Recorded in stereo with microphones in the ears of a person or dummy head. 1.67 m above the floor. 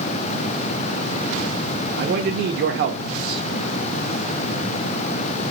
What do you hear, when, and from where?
2.0 s a man speaking: 50° right (ahead or behind), 0.7 m